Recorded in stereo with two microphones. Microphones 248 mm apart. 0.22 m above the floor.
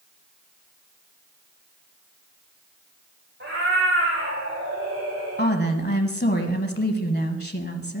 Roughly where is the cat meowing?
Right.